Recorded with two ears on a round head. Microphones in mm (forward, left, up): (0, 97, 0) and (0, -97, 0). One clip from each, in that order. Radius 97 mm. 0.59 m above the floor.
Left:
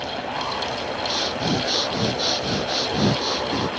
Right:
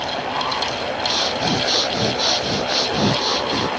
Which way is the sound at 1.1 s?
15° right (ahead or behind).